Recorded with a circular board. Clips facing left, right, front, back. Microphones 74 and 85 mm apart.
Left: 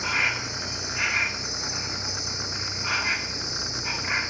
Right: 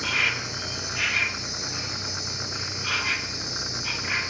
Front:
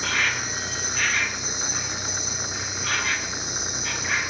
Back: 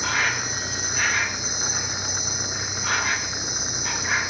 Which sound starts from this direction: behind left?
An insect, at 0.0 s.